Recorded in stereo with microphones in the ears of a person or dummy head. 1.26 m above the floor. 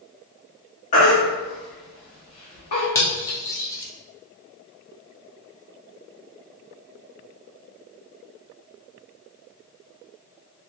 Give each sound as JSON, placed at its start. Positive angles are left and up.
{"t": 0.9, "sound": "a baby crying", "side_deg": 45, "distance_m": 1.0}
{"t": 3.0, "sound": "cutlery clinking", "side_deg": 15, "distance_m": 0.5}